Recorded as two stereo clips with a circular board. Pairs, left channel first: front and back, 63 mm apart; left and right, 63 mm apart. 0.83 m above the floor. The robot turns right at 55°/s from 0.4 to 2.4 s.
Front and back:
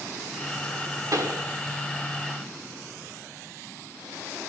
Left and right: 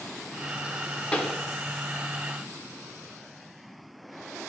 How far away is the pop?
About 0.9 m.